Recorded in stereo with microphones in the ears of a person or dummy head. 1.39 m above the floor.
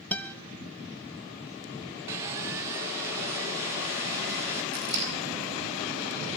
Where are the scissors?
65° right (ahead or behind), 7.5 m.